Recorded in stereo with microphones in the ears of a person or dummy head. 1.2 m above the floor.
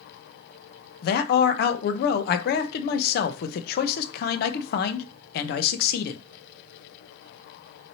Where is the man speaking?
55° left (ahead or behind), 0.6 m.